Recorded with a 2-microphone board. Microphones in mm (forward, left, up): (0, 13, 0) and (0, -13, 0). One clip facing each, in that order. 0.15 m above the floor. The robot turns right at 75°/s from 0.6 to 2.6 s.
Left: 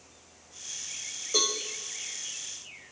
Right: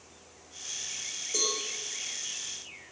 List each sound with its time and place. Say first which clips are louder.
1.3 s a cowbell: left 4 dB; 35° left (ahead or behind), 5.5 m; by 1.6 s 50° left (ahead or behind), 5.5 m